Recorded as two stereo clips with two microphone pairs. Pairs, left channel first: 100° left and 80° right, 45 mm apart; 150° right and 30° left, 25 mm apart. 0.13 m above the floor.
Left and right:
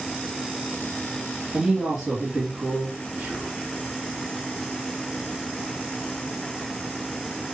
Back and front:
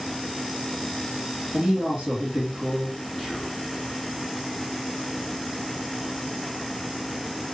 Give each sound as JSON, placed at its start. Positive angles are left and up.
{"t": 1.5, "sound": "a woman speaking", "azimuth_deg": -10, "distance_m": 2.0}
{"t": 3.2, "sound": "whispering", "azimuth_deg": -50, "distance_m": 2.5}